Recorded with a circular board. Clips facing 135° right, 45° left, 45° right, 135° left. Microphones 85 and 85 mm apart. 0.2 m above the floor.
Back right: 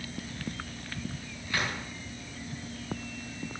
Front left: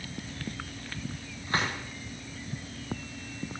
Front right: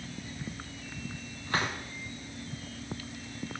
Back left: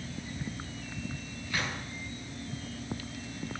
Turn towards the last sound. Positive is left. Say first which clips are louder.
# front left 3 dB, front right 4 dB
turn(degrees=-5)